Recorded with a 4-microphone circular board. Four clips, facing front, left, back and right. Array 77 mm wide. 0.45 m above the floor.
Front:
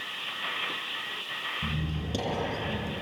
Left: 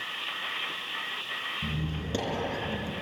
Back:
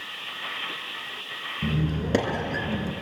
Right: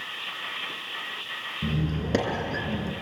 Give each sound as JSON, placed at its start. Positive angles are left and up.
{"t": 1.6, "sound": "a squeak", "azimuth_deg": -150, "distance_m": 3.0}